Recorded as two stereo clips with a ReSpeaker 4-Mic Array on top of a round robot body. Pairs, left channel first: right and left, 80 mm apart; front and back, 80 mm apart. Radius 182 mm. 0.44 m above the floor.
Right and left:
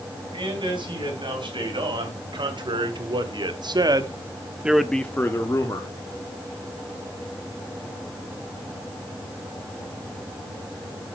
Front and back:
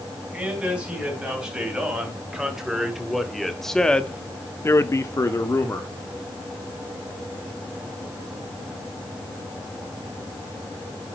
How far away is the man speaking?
About 5 m.